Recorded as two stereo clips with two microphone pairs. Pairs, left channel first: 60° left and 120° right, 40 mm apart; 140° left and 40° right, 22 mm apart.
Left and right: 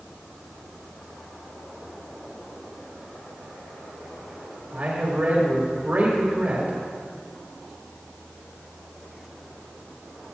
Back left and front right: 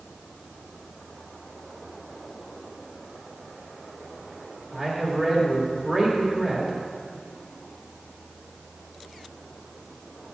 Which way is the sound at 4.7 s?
95° right.